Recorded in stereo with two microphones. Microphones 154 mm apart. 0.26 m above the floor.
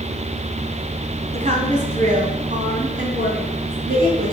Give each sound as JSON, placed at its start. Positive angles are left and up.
{"t": 1.3, "sound": "a woman speaking", "side_deg": -45, "distance_m": 2.0}